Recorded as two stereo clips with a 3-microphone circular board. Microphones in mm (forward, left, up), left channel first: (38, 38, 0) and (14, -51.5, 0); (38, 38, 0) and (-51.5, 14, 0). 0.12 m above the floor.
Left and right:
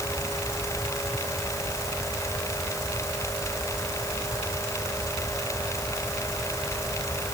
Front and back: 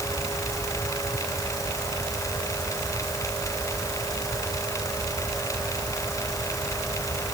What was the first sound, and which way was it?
Only background noise.